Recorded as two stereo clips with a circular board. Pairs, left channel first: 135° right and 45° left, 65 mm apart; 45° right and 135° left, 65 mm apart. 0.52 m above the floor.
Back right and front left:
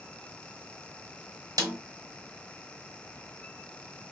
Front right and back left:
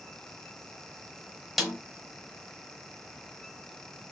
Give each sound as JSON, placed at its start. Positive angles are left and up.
{"t": 1.6, "sound": "a snare drum", "azimuth_deg": 45, "distance_m": 0.7}